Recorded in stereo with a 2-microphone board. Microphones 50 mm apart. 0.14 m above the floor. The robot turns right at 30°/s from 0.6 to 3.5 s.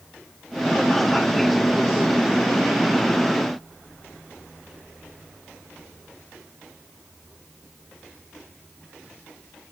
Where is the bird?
No bird in this recording.